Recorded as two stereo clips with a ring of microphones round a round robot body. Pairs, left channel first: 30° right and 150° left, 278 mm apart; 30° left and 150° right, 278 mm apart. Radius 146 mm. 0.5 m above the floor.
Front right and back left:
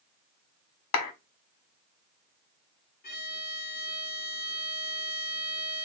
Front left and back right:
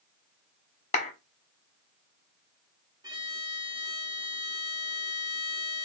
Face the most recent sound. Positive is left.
turn(degrees=-75)